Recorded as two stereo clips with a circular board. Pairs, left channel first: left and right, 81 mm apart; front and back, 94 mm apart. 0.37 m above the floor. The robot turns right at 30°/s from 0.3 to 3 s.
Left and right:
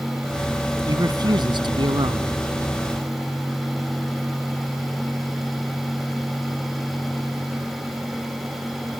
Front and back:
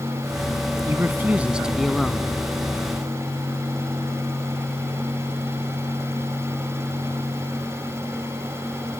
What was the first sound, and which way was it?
A man speaking, 120° right.